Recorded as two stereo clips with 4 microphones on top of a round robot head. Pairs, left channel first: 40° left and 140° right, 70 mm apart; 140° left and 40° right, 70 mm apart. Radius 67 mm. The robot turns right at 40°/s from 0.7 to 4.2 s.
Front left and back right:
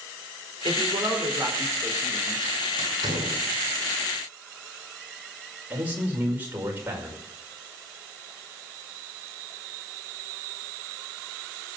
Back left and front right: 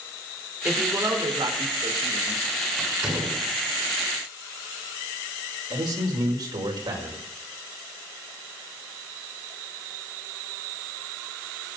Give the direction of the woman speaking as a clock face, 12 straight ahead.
4 o'clock.